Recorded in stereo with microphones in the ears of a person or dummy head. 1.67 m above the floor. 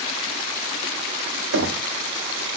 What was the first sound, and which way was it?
Knocking, 70° right (ahead or behind).